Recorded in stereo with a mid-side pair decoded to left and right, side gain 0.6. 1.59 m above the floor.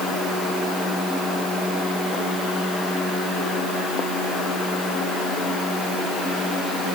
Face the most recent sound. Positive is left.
No sound to turn to.